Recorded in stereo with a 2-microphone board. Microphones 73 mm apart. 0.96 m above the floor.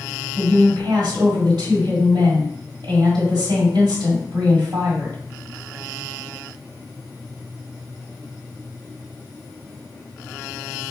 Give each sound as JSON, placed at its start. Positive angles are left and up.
{"t": 0.3, "sound": "a woman speaking", "side_deg": -75, "distance_m": 1.7}